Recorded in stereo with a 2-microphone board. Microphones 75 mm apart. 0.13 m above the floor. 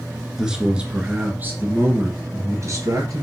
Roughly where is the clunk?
I don't hear a clunk.